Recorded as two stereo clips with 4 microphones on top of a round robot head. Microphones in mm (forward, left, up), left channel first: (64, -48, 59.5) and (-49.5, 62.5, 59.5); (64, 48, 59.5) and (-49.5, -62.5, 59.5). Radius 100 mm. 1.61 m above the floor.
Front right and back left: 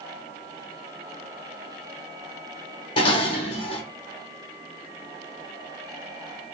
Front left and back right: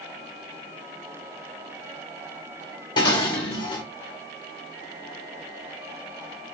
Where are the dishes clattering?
5° right, 0.7 m.